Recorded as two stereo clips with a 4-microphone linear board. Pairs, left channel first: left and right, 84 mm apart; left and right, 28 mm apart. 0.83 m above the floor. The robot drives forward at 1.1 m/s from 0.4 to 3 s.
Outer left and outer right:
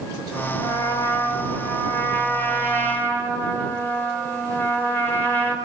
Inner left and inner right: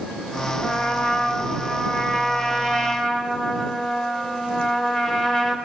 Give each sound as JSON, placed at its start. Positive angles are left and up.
{"t": 0.6, "sound": "a trumpet", "side_deg": 50, "distance_m": 2.5}